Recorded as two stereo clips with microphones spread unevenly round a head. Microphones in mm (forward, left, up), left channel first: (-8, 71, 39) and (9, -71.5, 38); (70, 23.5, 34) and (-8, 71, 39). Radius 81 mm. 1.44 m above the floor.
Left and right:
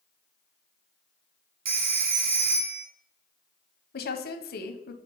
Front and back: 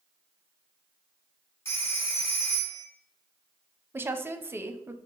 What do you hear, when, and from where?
1.6 s a phone ringing: 105° right, 0.8 m
3.9 s a woman speaking: 80° left, 0.9 m